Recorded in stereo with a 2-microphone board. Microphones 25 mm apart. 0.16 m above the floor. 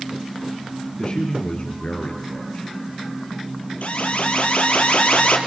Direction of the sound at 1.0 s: 40° left (ahead or behind).